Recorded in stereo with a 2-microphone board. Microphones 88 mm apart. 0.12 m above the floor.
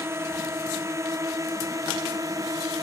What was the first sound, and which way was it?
A drone, 30° right (ahead or behind).